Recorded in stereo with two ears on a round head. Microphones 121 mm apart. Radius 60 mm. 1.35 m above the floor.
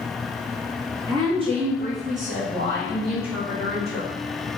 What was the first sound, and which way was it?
A woman speaking, 30° right (ahead or behind).